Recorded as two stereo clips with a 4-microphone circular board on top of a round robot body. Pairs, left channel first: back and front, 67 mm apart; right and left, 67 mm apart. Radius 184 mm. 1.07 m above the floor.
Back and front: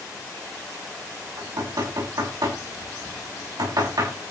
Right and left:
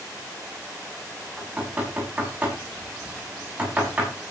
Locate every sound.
1.4 s knocking: 20° left, 7.5 m